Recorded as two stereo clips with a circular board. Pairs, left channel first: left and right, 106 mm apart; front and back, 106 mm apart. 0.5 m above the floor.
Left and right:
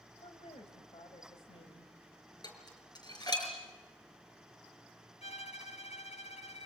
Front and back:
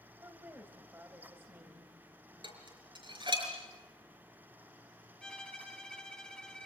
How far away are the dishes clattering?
About 5.5 m.